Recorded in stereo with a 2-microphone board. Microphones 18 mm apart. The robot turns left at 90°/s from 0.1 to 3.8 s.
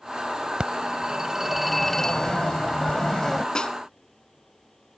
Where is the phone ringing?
80° right; by 3.5 s 25° left.